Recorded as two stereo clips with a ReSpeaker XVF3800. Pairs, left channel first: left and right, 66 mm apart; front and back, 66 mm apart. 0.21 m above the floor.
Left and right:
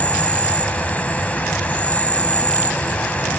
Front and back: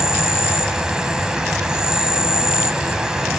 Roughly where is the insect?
Behind left.